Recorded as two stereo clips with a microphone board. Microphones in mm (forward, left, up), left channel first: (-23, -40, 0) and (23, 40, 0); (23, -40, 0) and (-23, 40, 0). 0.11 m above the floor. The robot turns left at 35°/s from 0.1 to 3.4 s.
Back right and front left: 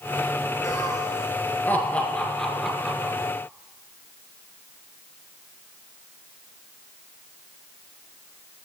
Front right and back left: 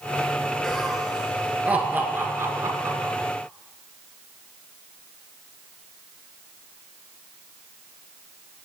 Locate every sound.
0.6 s laughter: 140° right, 1.8 m; by 3.1 s 135° left, 1.8 m